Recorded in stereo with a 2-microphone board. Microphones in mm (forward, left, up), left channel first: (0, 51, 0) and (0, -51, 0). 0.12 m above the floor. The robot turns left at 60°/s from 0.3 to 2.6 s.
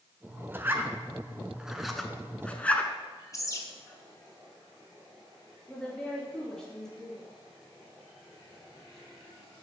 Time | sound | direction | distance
0.5 | a zipper | 20° right (ahead or behind) | 0.6 m
3.3 | a bird | 35° left (ahead or behind) | 1.0 m
5.7 | a woman speaking | 10° left (ahead or behind) | 2.5 m